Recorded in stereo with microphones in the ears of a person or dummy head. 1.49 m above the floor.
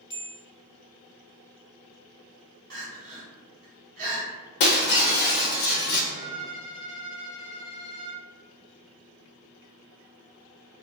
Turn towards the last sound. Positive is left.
turn(degrees=40)  # may be behind; listen again after turning